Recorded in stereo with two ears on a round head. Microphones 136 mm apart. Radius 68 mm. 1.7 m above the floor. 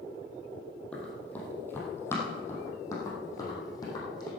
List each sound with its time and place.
0.9 s running footsteps: 10° left (ahead or behind), 3.5 m; by 4.3 s 25° left (ahead or behind), 5 m